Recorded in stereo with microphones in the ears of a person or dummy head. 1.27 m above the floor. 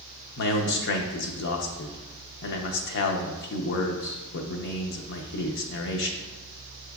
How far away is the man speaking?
About 0.6 m.